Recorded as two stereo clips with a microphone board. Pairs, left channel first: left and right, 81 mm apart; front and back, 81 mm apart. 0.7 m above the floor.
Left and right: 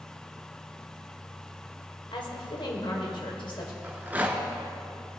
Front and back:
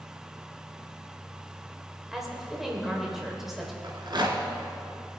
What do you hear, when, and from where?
2.1 s a woman speaking: 95° left, 2 m
3.8 s a rattle: 155° right, 1.5 m